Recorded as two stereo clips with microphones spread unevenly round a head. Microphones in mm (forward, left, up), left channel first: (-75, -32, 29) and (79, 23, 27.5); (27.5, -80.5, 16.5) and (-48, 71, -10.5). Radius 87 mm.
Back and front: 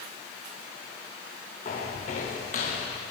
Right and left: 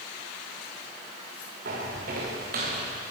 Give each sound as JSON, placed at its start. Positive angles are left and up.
{"t": 1.6, "sound": "footsteps", "azimuth_deg": 150, "distance_m": 7.0}